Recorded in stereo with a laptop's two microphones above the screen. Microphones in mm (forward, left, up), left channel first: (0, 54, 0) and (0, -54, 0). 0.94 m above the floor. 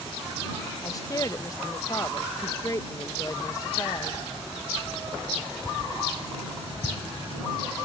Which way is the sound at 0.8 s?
30° left (ahead or behind).